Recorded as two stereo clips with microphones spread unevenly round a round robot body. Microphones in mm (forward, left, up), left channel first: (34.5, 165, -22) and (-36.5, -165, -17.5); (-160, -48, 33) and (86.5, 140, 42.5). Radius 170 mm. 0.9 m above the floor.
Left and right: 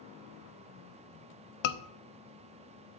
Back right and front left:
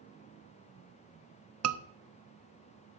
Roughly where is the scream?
Left.